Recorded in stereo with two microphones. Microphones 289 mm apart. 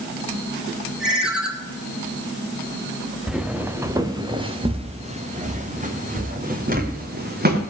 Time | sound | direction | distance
1.0 | a ringtone | centre (ahead or behind) | 2 m
3.3 | footsteps | centre (ahead or behind) | 1.4 m